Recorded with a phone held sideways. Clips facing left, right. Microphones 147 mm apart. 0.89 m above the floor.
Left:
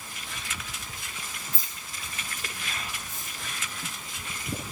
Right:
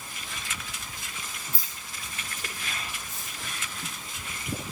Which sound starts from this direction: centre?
Keys jangling, at 1.5 s.